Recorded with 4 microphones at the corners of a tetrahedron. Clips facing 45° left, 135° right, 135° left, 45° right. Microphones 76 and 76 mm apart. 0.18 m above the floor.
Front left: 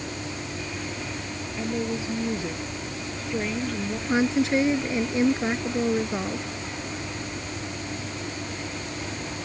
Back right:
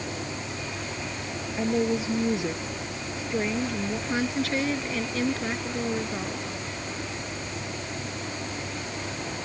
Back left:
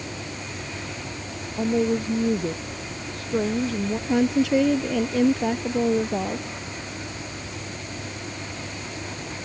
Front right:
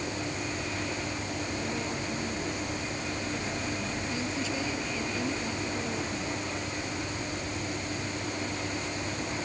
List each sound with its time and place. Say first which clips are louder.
1.6 s a woman speaking: back right 4 dB, back left 11 dB; 160° left; by 4.0 s 140° left
4.1 s a woman speaking: front left 7 dB, back left 16 dB; 115° left